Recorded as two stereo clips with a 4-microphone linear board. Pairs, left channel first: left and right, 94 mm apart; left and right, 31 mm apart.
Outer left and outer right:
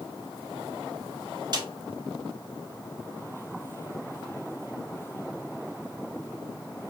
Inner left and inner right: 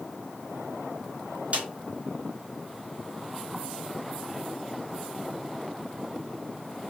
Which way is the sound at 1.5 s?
50° right (ahead or behind).